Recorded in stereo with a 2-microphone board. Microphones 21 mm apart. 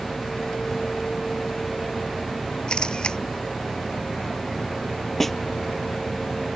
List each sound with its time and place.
2.7 s a camera shutter: 45° left (ahead or behind)
5.2 s a snare drum: 10° left (ahead or behind)